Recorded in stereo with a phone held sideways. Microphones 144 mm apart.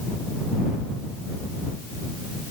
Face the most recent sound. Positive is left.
No sound to turn to.